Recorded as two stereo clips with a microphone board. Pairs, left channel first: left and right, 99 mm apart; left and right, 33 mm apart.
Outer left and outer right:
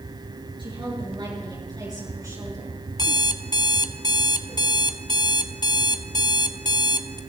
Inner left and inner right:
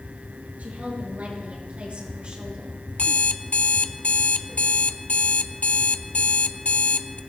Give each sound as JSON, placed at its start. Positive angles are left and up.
{"t": 0.6, "sound": "a woman speaking", "side_deg": -55, "distance_m": 6.5}
{"t": 3.0, "sound": "an alarm clock", "side_deg": 45, "distance_m": 0.6}